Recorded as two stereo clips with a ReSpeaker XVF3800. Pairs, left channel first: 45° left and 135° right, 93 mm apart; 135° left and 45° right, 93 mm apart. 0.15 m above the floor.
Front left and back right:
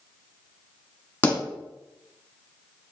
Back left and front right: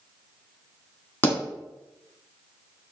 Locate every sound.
1.2 s a pop: 95° left, 1.4 m